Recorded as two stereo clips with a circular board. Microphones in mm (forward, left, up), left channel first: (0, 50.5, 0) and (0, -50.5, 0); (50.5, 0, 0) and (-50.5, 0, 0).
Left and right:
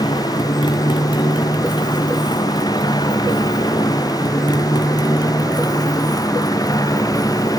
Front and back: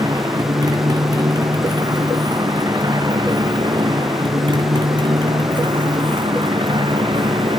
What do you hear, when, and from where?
0.0 s a motorcycle: 125° left; by 7.6 s 145° left